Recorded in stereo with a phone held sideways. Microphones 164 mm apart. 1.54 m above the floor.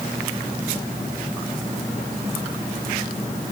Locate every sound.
Only background noise.